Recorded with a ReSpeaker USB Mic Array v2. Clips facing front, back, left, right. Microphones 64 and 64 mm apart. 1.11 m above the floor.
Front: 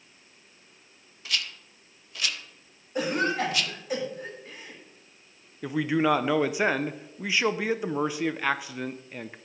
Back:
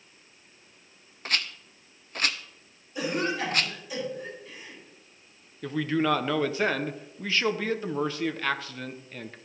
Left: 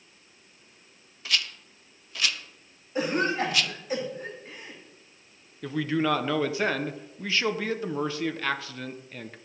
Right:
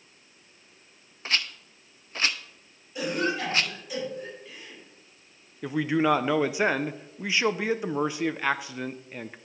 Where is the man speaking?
50° right, 0.5 m.